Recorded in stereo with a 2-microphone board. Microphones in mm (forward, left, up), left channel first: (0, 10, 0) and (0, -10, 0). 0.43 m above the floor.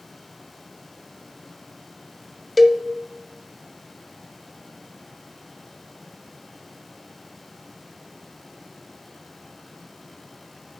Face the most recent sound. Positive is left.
turn(degrees=0)  # may be behind; listen again after turning